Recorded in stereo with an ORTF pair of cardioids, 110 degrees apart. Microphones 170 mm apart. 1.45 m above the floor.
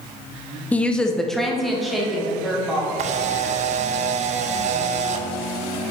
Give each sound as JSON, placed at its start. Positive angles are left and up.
{"t": 0.7, "sound": "a woman speaking", "azimuth_deg": 10, "distance_m": 0.6}
{"t": 3.0, "sound": "a camera shutter", "azimuth_deg": -45, "distance_m": 0.5}